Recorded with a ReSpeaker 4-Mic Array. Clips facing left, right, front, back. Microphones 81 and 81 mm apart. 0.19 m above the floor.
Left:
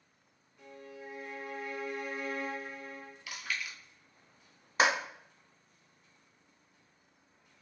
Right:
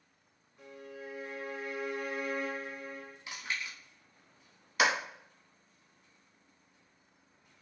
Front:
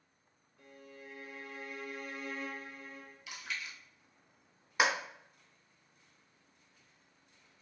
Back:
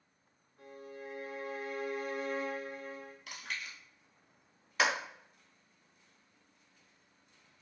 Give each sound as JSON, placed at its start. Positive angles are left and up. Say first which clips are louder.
{"t": 0.6, "sound": "a violin", "louder": "right 2 dB, back 6 dB", "azimuth_deg": -165, "distance_m": 0.8}
{"t": 3.3, "sound": "chewing", "louder": "even, front 2 dB", "azimuth_deg": -150, "distance_m": 0.7}
{"t": 4.8, "sound": "a clap", "louder": "left 1 dB, front 1 dB", "azimuth_deg": 65, "distance_m": 1.0}